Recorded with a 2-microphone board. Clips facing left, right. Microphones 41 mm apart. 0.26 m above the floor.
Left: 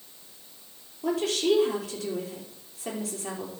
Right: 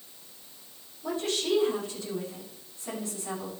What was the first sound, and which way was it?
A woman speaking, 75° left (ahead or behind).